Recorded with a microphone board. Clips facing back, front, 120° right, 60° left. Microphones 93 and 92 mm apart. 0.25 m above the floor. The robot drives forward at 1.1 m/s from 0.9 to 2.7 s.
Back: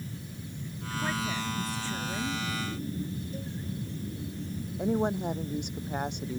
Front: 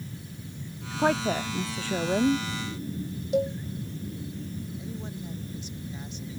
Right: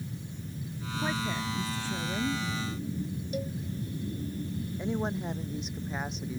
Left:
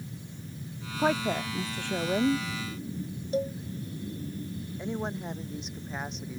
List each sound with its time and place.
1.0 s a woman speaking: 30° left; by 2.5 s 35° left
3.3 s a cowbell: straight ahead
4.8 s a woman speaking: 150° left